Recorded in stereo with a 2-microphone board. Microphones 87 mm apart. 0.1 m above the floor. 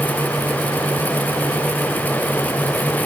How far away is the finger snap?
No finger snap in this recording.